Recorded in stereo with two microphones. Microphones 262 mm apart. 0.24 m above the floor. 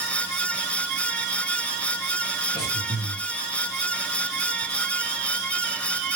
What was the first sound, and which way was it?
Breathing, 55° left (ahead or behind).